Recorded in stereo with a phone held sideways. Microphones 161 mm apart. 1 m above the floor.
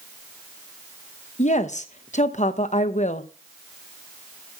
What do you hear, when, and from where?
1.4 s a woman speaking: 50° left (ahead or behind), 0.9 m